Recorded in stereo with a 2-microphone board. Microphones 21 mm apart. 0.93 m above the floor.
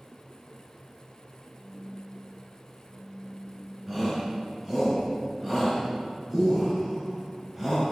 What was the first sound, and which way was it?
A phone buzzing, 60° right (ahead or behind).